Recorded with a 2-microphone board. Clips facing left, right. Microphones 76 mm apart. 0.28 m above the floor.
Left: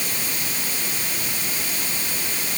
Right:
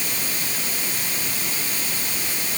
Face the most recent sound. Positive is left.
No sound to turn to.